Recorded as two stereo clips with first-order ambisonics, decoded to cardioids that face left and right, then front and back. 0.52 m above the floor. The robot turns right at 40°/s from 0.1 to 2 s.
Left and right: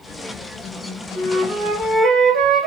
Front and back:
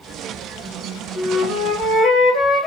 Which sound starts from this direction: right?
A flute, at 1.1 s.